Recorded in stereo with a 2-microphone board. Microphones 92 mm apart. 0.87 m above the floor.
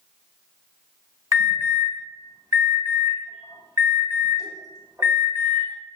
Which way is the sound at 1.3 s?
40° right (ahead or behind).